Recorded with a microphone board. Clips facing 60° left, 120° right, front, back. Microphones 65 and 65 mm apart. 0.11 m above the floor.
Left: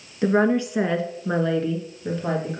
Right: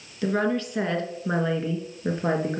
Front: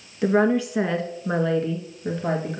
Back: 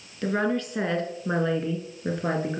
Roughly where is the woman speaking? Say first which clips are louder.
Left 5 dB, front 6 dB; ahead left.